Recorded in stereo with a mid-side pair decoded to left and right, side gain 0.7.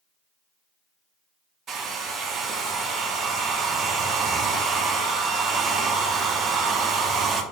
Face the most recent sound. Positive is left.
turn(degrees=-35)